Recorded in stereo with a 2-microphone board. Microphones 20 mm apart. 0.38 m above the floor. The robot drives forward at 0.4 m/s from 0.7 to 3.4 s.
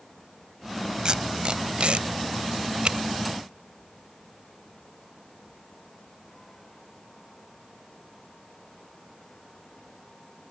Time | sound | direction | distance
1.1 | tape being pulled | 40° right (ahead or behind) | ?